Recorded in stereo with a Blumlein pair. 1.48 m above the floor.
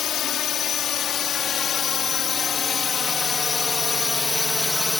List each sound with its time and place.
0.0 s a drone: 25° left; by 5.0 s 5° left